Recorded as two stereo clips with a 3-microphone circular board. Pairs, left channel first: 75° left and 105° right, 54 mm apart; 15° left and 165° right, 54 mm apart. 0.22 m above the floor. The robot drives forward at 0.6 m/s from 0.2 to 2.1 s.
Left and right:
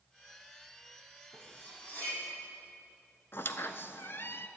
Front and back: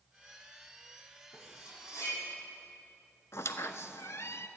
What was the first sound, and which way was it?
Cutlery clinking, 20° left.